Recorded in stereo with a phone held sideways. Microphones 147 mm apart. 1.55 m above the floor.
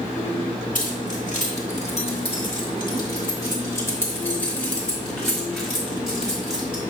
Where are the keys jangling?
65° left (ahead or behind), 1.9 m; by 6.8 s 5° right (ahead or behind), 3 m.